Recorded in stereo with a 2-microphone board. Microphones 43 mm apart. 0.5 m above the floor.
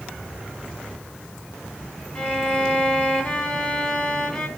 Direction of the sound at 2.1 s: 25° left (ahead or behind).